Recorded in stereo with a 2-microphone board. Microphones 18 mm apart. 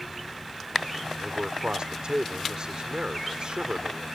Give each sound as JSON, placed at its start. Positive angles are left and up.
{"t": 1.2, "sound": "a man speaking", "side_deg": -50}